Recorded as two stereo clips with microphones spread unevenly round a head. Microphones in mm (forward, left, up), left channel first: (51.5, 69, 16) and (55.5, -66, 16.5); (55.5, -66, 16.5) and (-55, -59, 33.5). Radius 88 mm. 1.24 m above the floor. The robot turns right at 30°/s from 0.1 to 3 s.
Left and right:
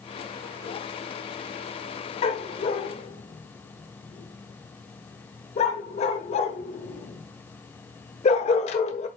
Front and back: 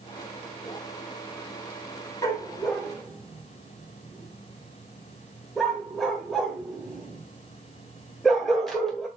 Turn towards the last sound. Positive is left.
turn(degrees=95)